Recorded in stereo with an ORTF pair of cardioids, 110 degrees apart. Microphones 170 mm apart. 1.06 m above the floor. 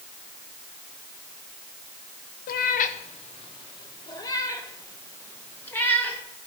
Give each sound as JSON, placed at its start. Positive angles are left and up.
{"t": 2.5, "sound": "a cat meowing", "azimuth_deg": 65, "distance_m": 0.8}